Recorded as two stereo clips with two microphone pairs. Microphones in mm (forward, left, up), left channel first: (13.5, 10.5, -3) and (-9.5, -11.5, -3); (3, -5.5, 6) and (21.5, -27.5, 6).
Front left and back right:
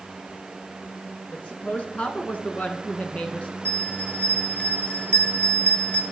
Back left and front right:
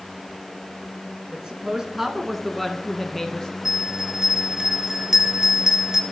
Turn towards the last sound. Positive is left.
turn(degrees=20)